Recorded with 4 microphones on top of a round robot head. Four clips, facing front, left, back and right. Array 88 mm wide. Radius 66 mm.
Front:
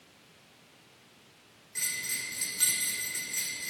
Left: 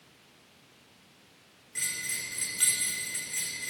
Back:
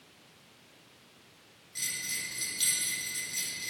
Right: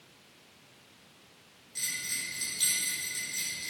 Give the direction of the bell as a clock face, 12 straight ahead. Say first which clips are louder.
Left 2 dB, front 2 dB; 10 o'clock.